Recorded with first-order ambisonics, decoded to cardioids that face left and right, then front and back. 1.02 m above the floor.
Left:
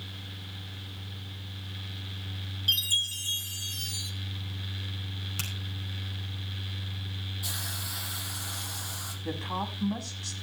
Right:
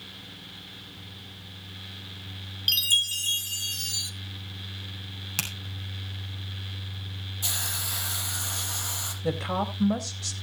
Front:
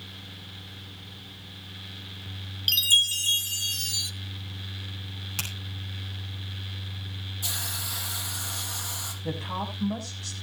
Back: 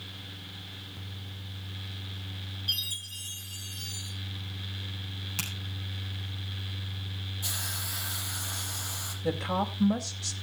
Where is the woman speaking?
115° right, 4.5 m.